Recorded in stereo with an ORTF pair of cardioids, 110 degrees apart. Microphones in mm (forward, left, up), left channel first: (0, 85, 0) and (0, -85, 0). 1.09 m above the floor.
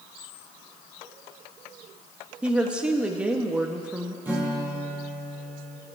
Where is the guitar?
10° right, 5 m.